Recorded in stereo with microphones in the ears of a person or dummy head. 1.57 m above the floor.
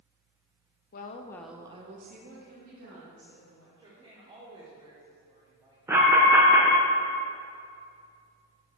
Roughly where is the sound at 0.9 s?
Left.